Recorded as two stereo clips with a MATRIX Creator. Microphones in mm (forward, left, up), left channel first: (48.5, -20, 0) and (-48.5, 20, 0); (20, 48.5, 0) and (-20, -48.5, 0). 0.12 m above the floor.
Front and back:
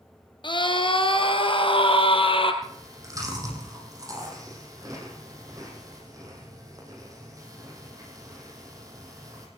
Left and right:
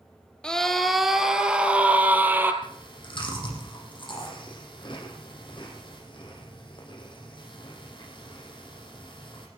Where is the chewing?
105° left, 4.5 m.